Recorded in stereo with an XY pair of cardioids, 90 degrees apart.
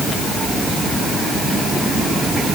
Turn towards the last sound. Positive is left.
No sound to turn to.